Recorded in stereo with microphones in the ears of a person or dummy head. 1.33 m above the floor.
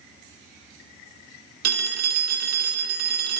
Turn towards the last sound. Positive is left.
turn(degrees=-60)  # may be behind; listen again after turning